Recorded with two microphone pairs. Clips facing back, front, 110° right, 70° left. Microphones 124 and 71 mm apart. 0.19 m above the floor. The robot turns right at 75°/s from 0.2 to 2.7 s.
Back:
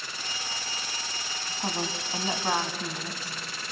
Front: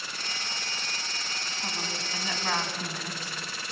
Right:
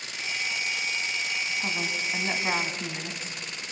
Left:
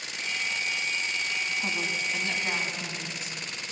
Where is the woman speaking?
165° left, 1.7 m; by 3.4 s 110° right, 1.7 m.